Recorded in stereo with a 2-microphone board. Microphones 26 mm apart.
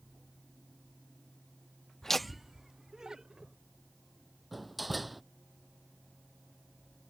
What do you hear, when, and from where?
2.0 s laughter: 20° left (ahead or behind); by 3.5 s 30° right (ahead or behind)
4.5 s a door slam: centre (ahead or behind)